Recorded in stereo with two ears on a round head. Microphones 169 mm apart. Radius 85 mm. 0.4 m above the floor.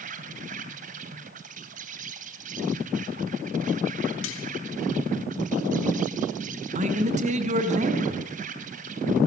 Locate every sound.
0.0 s an insect: 40° right (ahead or behind), 3.5 m
4.2 s cutlery clinking: 75° left (ahead or behind), 3.5 m
6.8 s a man speaking: 40° right (ahead or behind), 4.5 m